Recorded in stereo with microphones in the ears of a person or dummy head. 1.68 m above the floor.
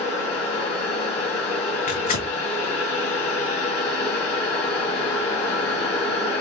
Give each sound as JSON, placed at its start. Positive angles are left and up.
{"t": 0.0, "sound": "a machine running", "side_deg": 15, "distance_m": 1.5}
{"t": 1.9, "sound": "tearing paper", "side_deg": 35, "distance_m": 1.2}